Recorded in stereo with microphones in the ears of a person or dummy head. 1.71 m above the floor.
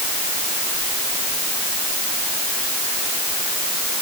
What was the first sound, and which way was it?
Only background noise.